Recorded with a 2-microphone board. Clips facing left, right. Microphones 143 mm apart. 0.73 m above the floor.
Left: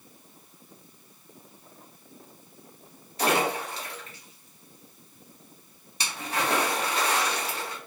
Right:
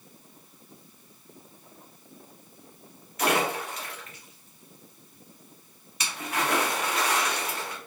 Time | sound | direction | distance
3.2 | a splash | 30° left (ahead or behind) | 0.8 m